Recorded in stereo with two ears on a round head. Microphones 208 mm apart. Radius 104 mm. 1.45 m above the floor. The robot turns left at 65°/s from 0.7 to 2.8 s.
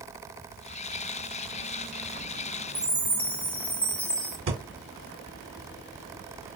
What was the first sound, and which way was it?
A chime, 10° left (ahead or behind).